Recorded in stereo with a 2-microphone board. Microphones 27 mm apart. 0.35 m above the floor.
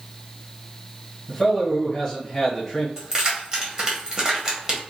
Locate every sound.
1.3 s a man speaking: 20° left (ahead or behind), 1.3 m
3.0 s keys jangling: 25° right (ahead or behind), 1.0 m